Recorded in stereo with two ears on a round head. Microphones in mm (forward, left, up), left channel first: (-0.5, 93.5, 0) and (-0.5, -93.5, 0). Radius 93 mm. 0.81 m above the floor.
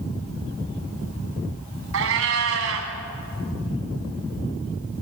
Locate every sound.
1.9 s a cat meowing: 70° right (ahead or behind), 2.5 m